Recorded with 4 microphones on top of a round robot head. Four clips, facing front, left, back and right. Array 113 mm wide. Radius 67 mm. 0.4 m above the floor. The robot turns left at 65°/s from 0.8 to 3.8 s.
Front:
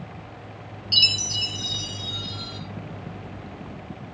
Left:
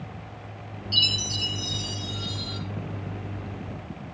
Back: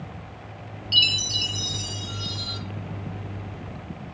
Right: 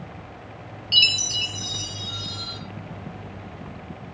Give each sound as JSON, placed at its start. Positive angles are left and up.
{"t": 0.9, "sound": "a chime", "azimuth_deg": -75, "distance_m": 1.9}